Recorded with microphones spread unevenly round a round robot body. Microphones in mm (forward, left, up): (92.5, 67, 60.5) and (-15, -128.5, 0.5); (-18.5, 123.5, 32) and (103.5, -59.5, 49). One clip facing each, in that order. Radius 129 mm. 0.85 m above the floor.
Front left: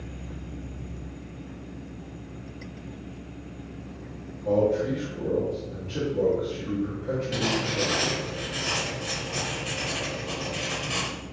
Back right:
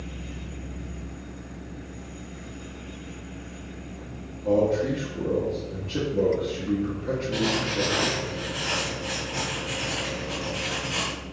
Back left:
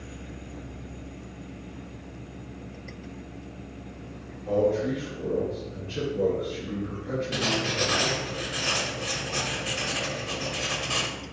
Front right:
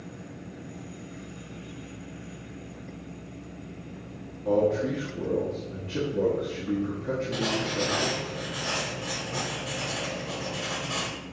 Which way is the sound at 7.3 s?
65° left.